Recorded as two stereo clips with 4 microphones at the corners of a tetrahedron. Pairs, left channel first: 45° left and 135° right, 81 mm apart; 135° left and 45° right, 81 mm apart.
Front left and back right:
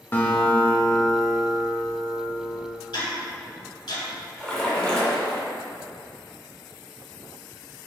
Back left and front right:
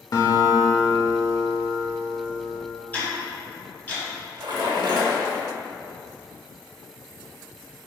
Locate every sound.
0.1 s a guitar: 105° left, 0.6 m
2.9 s ticking: 65° left, 1.2 m
4.4 s a splash: 35° right, 0.6 m